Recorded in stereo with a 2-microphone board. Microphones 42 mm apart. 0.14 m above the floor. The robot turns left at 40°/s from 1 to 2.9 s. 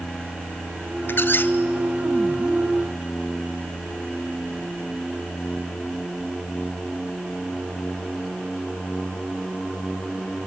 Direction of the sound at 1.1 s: 60° left (ahead or behind).